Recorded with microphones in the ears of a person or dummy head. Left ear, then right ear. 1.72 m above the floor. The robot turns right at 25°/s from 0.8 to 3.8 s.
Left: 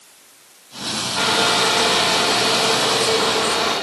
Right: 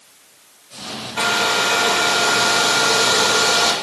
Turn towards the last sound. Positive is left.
turn(degrees=-100)